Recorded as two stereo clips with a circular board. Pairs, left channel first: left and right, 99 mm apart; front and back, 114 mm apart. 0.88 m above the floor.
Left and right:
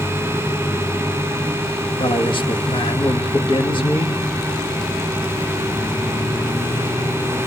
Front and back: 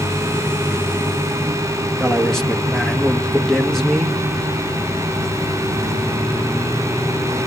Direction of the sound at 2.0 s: 85° left.